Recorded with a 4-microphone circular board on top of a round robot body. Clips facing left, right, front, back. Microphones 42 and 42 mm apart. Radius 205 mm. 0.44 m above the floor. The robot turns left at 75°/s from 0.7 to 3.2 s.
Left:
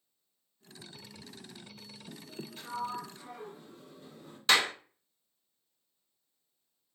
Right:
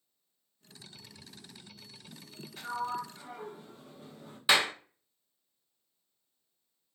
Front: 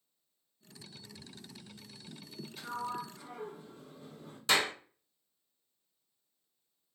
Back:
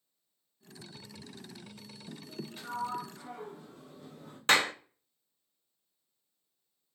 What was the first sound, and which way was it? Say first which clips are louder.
A sliding door: right 3 dB, back 2 dB; 115° right.